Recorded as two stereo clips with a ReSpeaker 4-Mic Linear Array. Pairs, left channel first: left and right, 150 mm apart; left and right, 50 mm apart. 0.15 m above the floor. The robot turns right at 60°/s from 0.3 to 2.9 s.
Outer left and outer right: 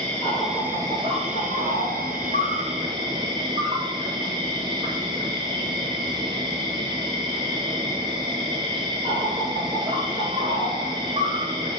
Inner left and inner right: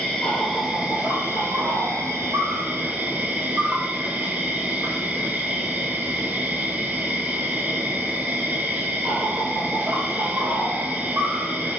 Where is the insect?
170° left, 0.8 m; by 11.8 s 35° right, 0.8 m.